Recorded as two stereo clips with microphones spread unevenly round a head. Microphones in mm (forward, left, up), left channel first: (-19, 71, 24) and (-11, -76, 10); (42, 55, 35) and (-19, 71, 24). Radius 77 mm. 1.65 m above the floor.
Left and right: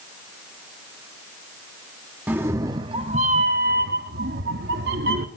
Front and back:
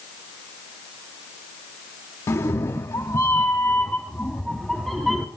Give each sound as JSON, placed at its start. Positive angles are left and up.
{"t": 2.3, "sound": "a cat meowing", "azimuth_deg": -5, "distance_m": 1.3}